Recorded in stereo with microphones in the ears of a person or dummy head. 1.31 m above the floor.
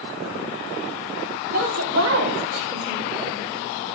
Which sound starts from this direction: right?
A woman speaking, at 1.5 s.